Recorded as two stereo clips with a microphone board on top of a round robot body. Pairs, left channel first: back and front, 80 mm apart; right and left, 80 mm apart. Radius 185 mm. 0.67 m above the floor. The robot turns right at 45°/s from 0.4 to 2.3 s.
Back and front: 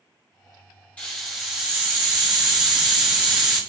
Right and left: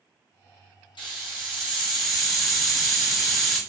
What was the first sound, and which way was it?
A hiss, 105° right.